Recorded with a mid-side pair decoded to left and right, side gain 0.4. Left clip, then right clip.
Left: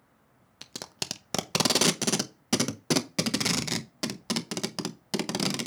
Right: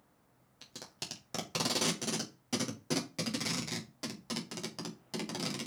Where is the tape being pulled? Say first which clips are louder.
Left 8 dB; 70° left, 0.7 m.